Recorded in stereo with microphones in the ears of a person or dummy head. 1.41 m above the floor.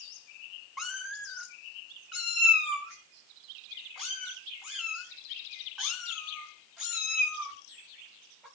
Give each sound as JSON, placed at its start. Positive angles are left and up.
{"t": 0.8, "sound": "a cat meowing", "side_deg": -5, "distance_m": 1.8}